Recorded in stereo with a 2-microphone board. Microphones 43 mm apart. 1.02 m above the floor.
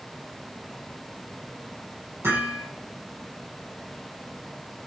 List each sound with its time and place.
2.2 s hammering: 80° right, 8 m